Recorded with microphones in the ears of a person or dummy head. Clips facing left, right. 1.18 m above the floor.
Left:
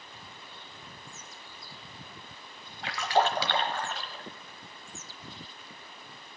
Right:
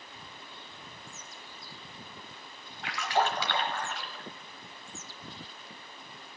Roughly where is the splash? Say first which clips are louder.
Left 3 dB; left.